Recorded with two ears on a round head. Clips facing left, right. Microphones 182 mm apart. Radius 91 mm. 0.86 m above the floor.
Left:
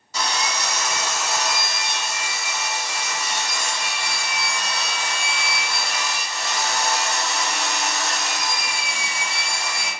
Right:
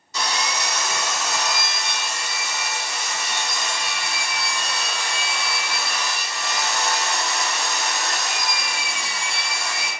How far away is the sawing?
About 2.0 m.